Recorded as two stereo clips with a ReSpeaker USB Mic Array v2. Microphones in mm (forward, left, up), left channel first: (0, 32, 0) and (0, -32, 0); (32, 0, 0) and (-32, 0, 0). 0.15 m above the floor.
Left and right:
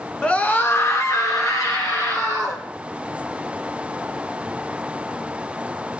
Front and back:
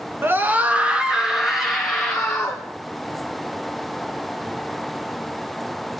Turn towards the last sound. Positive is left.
turn(degrees=85)